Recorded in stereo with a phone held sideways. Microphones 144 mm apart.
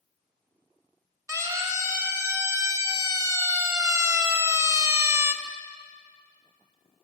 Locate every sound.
1.3 s a siren: 20° right (ahead or behind), 4 m; by 5.3 s 15° right (ahead or behind), 1.2 m